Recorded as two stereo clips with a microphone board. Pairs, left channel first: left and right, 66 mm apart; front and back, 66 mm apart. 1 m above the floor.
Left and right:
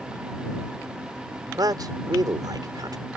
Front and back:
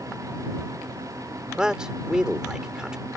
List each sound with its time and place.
1.6 s a man speaking: 100° right